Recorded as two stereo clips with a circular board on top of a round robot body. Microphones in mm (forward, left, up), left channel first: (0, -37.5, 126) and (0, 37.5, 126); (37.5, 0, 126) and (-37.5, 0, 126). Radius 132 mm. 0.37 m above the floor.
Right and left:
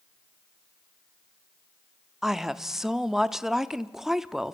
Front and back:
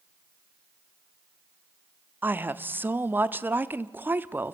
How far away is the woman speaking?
About 1.0 m.